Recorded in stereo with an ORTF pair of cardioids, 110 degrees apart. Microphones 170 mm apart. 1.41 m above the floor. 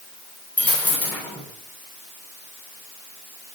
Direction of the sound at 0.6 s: 10° left.